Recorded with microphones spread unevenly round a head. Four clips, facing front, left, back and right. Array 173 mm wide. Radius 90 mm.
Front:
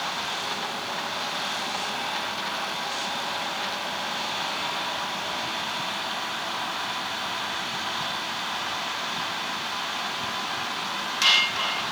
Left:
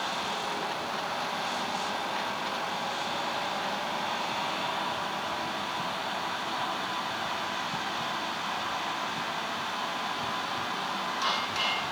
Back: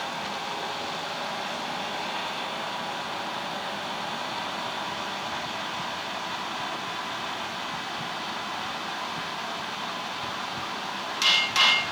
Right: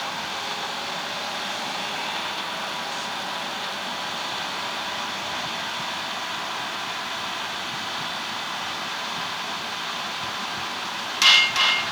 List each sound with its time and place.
Only background noise.